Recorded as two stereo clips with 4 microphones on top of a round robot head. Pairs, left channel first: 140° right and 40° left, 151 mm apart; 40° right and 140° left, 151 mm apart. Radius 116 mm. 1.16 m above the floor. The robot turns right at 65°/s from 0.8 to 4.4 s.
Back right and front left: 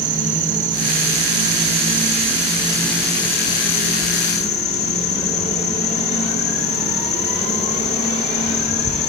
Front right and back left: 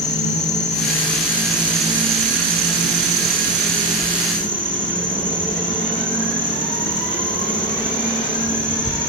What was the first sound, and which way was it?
An insect, 5° left.